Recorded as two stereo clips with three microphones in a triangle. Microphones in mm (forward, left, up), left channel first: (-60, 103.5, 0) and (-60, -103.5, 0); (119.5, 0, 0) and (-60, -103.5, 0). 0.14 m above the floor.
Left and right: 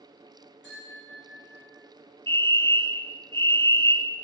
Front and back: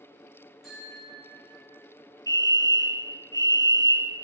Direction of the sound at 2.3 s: 115° right.